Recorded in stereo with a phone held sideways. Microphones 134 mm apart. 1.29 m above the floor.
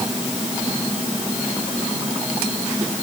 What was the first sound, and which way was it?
Only background noise.